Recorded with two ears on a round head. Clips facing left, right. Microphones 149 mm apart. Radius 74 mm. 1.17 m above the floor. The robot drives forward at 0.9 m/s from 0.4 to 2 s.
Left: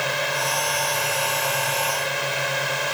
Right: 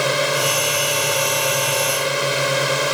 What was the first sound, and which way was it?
A drone, 70° right (ahead or behind).